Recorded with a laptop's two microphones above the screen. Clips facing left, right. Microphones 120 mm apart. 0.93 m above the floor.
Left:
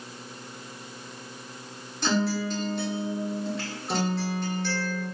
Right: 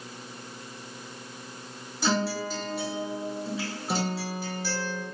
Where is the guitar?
5° right (ahead or behind), 0.8 m.